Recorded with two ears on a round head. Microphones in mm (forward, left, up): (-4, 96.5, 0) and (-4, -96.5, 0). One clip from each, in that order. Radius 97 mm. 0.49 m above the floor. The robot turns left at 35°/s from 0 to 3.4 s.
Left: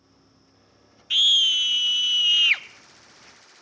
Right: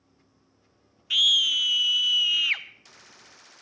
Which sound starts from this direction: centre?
A scream, at 1.1 s.